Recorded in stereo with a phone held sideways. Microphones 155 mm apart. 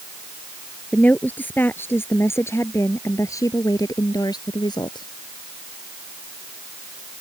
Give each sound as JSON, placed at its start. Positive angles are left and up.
{"t": 0.9, "sound": "a woman speaking", "side_deg": 10}